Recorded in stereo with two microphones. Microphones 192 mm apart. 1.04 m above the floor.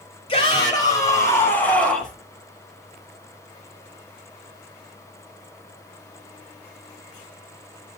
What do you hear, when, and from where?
0.3 s a shout: 25° left (ahead or behind), 6 m; by 2.1 s centre (ahead or behind), 5 m